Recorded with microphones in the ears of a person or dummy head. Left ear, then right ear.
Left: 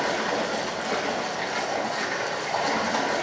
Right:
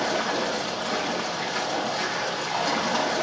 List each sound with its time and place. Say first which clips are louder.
0.0 s running water: even; 55° left (ahead or behind), 4 m